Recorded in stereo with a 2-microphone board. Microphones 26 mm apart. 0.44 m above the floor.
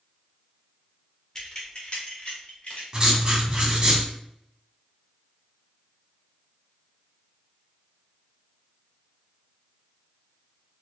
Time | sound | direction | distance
1.4 | keys jangling | 20° left (ahead or behind) | 0.8 m
2.9 | writing | 30° right (ahead or behind) | 1.2 m